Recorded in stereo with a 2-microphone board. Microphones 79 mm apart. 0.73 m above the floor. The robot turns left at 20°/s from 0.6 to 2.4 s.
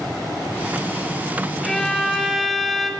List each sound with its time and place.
1.6 s a violin: 10° left (ahead or behind), 0.6 m; by 2.9 s centre (ahead or behind), 0.6 m